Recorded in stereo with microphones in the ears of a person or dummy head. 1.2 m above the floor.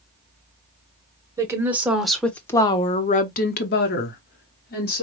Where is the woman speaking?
20° right (ahead or behind), 1.1 m; by 5.0 s 50° left (ahead or behind), 1.5 m.